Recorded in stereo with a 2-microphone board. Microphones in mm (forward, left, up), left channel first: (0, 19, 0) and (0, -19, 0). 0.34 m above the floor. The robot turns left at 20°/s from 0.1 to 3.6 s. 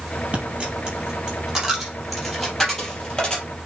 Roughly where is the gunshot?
I don't hear a gunshot.